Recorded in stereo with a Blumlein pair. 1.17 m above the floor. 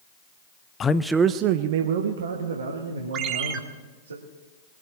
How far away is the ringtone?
About 1.4 m.